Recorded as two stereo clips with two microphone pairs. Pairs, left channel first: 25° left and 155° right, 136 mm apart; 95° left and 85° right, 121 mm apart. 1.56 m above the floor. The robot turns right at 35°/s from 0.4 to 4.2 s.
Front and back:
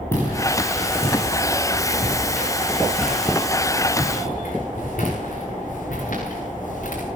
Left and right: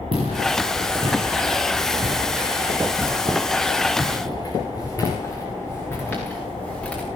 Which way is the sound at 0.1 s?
45° right.